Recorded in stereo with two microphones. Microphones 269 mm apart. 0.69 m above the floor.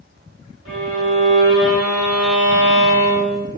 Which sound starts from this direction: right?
A violin, at 0.7 s.